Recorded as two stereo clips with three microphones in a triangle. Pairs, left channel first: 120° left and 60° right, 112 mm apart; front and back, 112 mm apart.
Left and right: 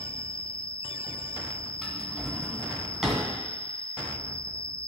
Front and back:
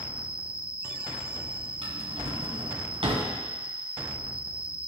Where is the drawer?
150° right, 1.9 m.